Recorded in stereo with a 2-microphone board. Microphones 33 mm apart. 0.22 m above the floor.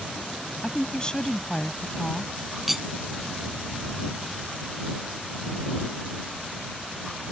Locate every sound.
0.6 s a woman speaking: 25° left (ahead or behind)
2.7 s cutlery clinking: 5° right (ahead or behind)